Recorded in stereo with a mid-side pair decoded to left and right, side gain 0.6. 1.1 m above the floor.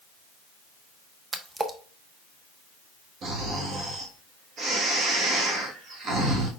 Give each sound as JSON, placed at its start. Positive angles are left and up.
{"t": 1.3, "sound": "a splash", "azimuth_deg": -25, "distance_m": 0.8}
{"t": 3.2, "sound": "snoring", "azimuth_deg": -50, "distance_m": 1.5}